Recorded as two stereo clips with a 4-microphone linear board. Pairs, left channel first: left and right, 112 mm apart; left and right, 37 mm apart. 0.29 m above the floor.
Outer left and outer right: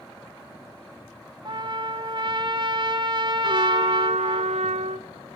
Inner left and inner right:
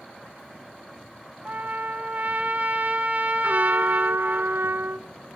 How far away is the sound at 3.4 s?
About 0.6 m.